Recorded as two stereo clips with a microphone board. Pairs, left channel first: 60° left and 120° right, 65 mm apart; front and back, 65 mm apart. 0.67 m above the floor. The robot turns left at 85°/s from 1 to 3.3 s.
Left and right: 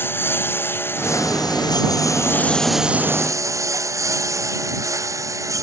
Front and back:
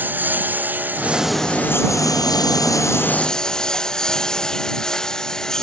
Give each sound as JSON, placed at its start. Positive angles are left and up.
{"t": 0.0, "sound": "a lawn mower", "azimuth_deg": 115}